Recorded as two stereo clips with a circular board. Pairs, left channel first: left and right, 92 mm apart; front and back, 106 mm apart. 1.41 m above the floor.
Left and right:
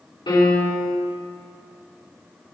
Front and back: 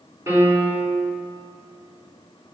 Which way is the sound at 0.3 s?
120° left.